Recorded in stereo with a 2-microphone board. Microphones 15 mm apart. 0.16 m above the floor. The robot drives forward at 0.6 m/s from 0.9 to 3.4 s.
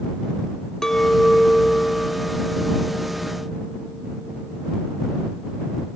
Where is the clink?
50° left (ahead or behind), 0.9 m; by 4.8 s 25° left (ahead or behind), 1.5 m.